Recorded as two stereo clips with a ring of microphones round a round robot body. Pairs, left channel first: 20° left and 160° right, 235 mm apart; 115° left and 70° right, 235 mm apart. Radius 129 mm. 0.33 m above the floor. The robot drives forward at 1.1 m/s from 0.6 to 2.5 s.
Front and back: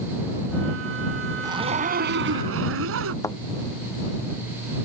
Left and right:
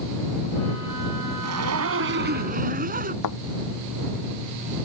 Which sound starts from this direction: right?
A zipper, at 1.4 s.